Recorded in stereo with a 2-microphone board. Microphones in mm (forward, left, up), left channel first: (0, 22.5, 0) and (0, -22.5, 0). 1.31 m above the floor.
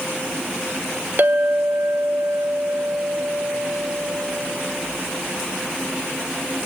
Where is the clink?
45° right (ahead or behind), 0.9 m.